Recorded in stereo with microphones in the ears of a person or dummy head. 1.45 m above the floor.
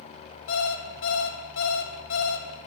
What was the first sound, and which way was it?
An alarm clock, 70° left (ahead or behind).